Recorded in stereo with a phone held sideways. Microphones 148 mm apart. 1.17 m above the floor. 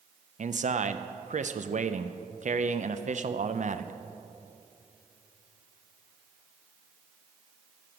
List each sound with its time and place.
0.4 s a man speaking: 55° right (ahead or behind), 0.6 m